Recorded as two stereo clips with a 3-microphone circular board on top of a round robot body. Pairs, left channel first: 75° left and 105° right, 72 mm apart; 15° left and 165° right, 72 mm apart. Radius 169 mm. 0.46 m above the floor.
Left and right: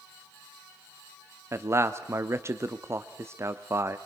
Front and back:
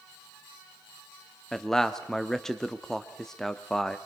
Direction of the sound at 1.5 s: 70° right.